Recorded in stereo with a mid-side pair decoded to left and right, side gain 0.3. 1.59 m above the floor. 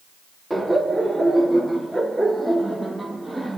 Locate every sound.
0.5 s laughter: 20° right, 3.5 m